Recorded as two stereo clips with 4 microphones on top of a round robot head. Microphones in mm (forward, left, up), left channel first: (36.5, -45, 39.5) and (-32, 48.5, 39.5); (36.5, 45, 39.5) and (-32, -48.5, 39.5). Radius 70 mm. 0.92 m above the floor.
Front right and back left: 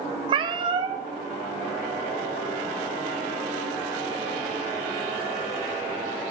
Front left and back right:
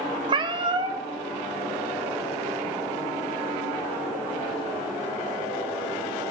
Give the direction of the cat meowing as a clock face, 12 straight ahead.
6 o'clock.